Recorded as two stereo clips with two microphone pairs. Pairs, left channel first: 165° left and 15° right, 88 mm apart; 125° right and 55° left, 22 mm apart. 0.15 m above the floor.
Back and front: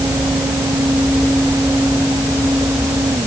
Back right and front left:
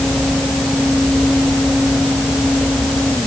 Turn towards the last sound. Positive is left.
No sound to turn to.